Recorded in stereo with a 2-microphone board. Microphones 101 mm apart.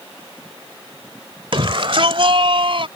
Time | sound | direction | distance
1.5 | a shout | 55° right (ahead or behind) | ?